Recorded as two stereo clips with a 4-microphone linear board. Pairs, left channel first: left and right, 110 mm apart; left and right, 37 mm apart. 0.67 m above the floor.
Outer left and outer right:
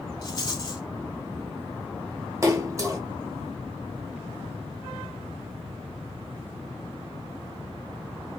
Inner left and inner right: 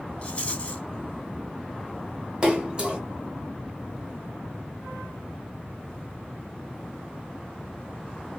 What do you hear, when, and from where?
0.2 s a rattle: 40° left (ahead or behind), 0.7 m
2.4 s a splash: 30° right (ahead or behind), 0.8 m